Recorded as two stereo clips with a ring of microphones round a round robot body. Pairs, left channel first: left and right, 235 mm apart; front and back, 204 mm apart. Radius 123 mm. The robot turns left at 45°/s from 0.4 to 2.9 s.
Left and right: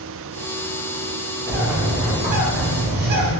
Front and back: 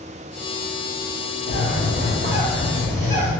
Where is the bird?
5° right, 0.7 m; by 3.3 s 70° right, 0.7 m.